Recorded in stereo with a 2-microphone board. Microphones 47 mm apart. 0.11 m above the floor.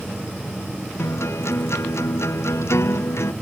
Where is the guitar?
65° left (ahead or behind).